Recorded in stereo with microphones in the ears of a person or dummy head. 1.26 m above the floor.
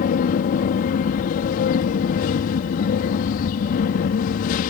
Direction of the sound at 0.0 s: 45° left (ahead or behind).